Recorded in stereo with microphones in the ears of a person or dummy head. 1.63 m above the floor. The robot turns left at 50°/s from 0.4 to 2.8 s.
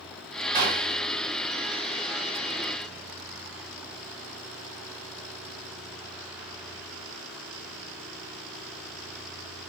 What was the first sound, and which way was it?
A gunshot, 40° right (ahead or behind).